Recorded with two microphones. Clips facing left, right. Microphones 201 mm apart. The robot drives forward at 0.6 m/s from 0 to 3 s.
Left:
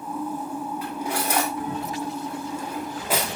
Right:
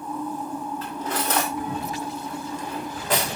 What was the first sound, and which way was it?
Cutlery clinking, 10° left (ahead or behind).